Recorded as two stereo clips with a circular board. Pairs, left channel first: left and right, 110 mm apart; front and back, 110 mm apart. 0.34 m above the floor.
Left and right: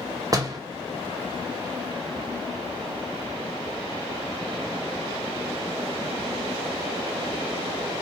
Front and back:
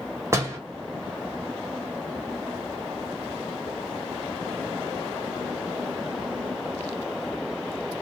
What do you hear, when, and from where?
0.3 s a door slam: 125° right, 0.8 m